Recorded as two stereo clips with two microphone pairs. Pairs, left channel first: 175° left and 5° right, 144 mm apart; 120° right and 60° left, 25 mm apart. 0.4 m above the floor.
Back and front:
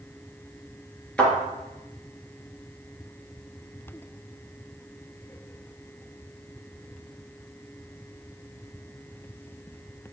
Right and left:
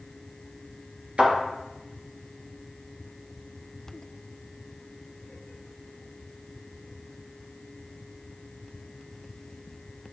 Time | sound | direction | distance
1.2 | a thud | 95° left | 3 m